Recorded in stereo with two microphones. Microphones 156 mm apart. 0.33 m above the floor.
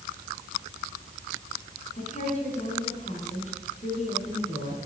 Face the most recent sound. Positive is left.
turn(degrees=45)  # may be behind; listen again after turning